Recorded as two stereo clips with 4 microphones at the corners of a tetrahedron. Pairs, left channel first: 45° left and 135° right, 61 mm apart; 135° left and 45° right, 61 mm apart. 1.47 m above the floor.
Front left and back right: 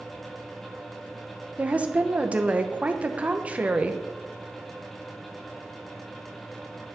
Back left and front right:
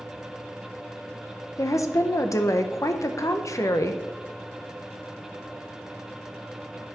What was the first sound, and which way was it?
A woman speaking, 160° left.